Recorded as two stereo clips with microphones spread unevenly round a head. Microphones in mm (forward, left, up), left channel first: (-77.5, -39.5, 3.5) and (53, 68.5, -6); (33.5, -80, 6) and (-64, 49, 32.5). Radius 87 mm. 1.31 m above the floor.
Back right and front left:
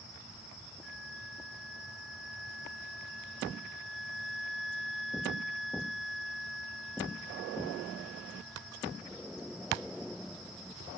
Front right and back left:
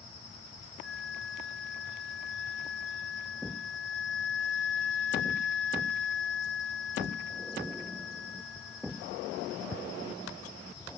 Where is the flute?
50° right.